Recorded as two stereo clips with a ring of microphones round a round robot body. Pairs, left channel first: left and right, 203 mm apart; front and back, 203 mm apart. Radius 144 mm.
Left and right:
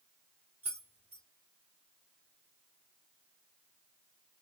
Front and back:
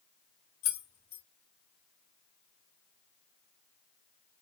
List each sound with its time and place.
0.6 s keys jangling: 10° right, 0.9 m